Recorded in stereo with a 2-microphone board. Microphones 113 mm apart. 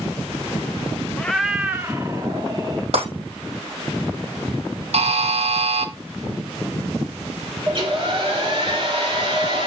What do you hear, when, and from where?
1.2 s a cat meowing: 10° left (ahead or behind), 0.6 m; by 2.8 s 40° right (ahead or behind), 1.3 m
2.9 s breaking glass: 60° right (ahead or behind), 5 m
4.9 s a buzzer: 65° right (ahead or behind), 0.9 m
7.7 s a hair dryer: 45° right (ahead or behind), 2.5 m